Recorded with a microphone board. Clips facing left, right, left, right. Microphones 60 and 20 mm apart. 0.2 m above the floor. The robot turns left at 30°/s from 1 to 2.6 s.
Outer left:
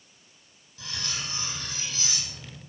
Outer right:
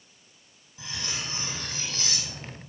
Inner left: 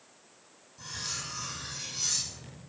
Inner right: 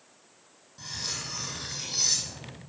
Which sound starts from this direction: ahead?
Cutlery clinking, at 0.8 s.